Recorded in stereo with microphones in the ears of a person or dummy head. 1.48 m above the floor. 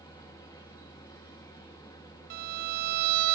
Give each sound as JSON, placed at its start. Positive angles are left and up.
{"t": 0.0, "sound": "a machine running", "side_deg": 20, "distance_m": 1.2}
{"t": 2.3, "sound": "a violin", "side_deg": -55, "distance_m": 0.6}